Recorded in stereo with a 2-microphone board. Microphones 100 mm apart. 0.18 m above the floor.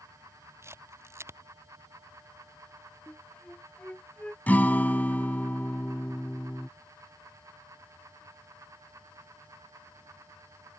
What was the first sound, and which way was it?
A camera shutter, 25° right (ahead or behind).